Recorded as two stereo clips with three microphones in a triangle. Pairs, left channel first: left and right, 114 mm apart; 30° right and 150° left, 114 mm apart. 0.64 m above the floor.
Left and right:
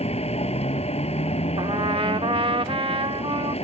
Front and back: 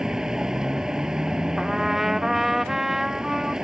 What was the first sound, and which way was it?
A vehicle, 65° left.